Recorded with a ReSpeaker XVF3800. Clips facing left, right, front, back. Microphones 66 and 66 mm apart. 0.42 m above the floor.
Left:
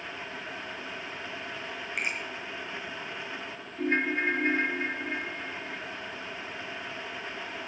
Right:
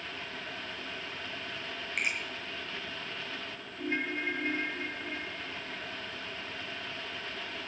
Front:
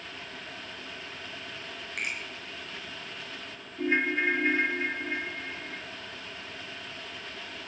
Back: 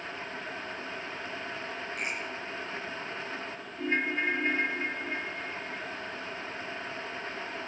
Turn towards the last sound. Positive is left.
turn(degrees=65)